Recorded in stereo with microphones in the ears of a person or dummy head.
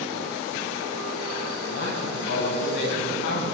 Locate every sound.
1.7 s a man speaking: 65° left (ahead or behind), 8.5 m